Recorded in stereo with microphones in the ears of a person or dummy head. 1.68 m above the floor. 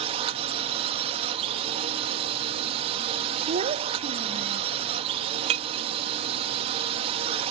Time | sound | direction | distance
0.0 | a drone | 40° right (ahead or behind) | ?
3.5 | a child speaking | 35° right (ahead or behind) | ?
5.5 | breaking glass | 40° right (ahead or behind) | ?